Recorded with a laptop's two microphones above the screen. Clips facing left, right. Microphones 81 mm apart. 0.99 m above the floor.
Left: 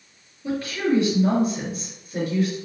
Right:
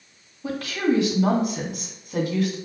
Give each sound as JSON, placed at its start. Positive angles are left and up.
{"t": 0.4, "sound": "a woman speaking", "side_deg": -85, "distance_m": 1.5}